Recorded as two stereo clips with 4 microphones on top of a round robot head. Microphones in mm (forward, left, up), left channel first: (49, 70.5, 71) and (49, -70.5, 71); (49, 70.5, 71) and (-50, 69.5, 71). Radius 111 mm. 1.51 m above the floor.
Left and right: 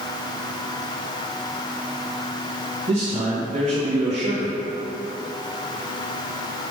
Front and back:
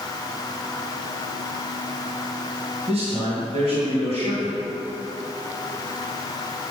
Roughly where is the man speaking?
Behind right.